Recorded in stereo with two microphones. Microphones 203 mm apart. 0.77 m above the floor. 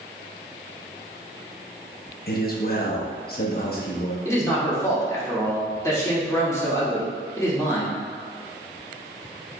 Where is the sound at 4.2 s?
15° left (ahead or behind), 1.5 m.